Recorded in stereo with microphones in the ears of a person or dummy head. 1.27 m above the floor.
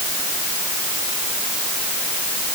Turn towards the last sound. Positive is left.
No sound to turn to.